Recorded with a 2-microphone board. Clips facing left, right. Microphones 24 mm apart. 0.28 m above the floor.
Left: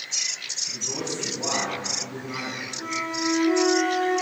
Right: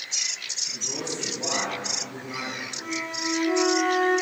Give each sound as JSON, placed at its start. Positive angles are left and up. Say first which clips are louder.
{"t": 0.7, "sound": "a man speaking", "louder": "left 1 dB", "side_deg": 30, "distance_m": 2.5}
{"t": 2.8, "sound": "a flute", "louder": "left 4 dB", "side_deg": 5, "distance_m": 2.0}